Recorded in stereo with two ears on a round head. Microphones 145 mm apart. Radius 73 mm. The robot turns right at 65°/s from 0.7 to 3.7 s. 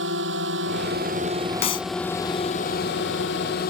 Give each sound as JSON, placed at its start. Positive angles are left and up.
{"t": 0.0, "sound": "a drone", "azimuth_deg": -80}
{"t": 1.6, "sound": "a clap", "side_deg": 40}